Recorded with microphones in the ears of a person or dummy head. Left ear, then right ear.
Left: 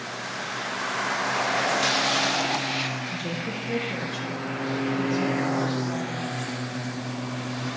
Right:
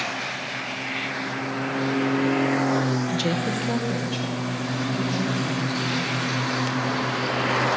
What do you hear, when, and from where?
3.1 s a woman speaking: 55° right (ahead or behind), 0.6 m; by 6.3 s 20° right (ahead or behind), 3.5 m